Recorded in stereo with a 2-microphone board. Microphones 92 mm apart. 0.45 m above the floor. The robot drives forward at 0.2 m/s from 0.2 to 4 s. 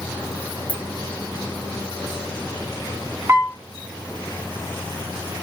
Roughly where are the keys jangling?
Centre.